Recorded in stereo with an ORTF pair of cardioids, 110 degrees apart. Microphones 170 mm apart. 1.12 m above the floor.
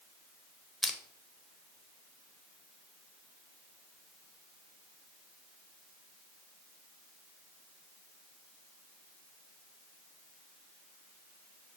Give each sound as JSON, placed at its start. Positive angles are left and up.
{"t": 0.8, "sound": "crushing", "azimuth_deg": 0, "distance_m": 0.6}